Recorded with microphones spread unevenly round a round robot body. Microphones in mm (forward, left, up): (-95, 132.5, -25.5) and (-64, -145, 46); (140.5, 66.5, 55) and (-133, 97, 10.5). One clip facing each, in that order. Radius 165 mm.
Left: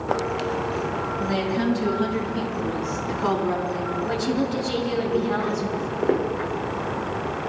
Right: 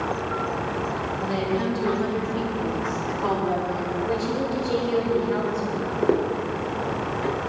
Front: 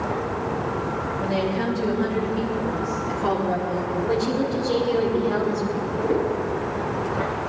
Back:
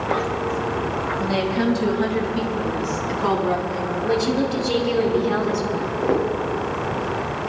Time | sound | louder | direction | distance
1.2 | a woman speaking | left 1 dB, back 3 dB | 140° left | 4 m
4.0 | a woman speaking | left 2 dB, back 3 dB | 130° left | 3.5 m
5.7 | footsteps | right 2 dB, back 2 dB | 160° right | 3 m